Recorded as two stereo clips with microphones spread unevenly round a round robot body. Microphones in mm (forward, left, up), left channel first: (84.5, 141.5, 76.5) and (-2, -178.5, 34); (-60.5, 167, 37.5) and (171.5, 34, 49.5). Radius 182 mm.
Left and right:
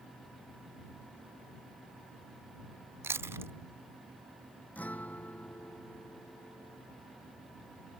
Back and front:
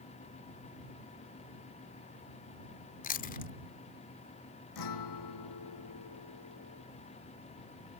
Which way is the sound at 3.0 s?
175° right.